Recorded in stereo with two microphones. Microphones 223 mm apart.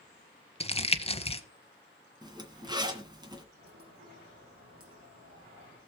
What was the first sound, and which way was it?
Crumpling, 25° left (ahead or behind).